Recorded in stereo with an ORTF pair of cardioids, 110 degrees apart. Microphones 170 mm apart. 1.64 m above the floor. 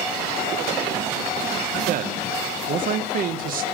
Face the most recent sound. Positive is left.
turn(degrees=-60)